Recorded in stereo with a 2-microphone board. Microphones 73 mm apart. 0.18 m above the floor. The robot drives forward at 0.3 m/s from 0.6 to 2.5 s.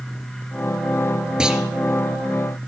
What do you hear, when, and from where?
1.4 s a clunk: 10° right (ahead or behind), 2.5 m